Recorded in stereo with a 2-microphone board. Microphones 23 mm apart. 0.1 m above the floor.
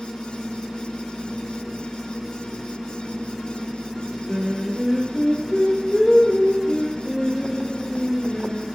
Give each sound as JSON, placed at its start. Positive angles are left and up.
{"t": 4.3, "sound": "singing", "side_deg": 25, "distance_m": 3.0}